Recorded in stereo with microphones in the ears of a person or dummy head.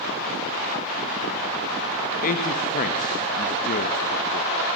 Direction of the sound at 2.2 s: 45° left (ahead or behind).